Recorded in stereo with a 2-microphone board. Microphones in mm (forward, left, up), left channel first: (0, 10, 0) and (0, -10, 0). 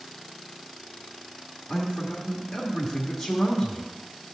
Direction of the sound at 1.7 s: 35° left (ahead or behind).